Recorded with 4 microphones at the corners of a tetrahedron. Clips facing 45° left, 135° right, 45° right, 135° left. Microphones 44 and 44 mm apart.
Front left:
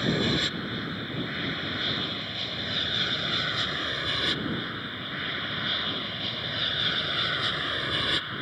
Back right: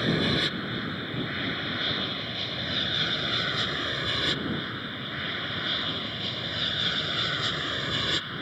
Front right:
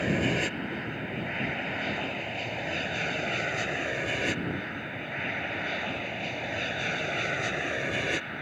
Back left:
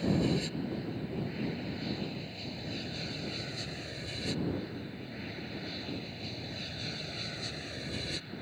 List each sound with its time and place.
0.0 s an aircraft: 55° right; by 8.4 s 35° right